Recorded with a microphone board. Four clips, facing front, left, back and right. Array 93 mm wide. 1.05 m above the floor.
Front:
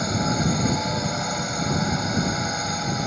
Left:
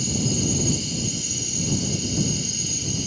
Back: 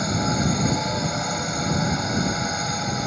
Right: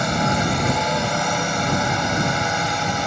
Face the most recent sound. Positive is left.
turn(degrees=-90)